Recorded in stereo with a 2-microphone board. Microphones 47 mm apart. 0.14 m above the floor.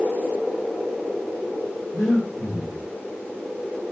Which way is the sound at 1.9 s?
75° left (ahead or behind).